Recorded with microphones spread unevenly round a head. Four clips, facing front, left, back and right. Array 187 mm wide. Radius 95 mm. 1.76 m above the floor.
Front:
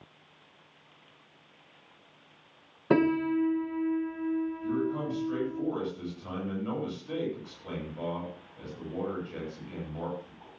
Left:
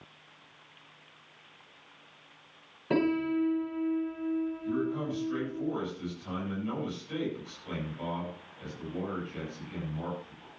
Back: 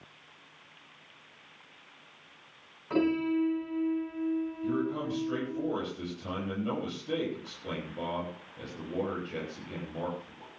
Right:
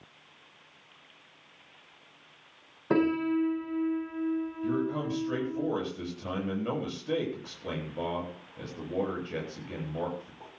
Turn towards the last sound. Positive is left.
turn(degrees=-110)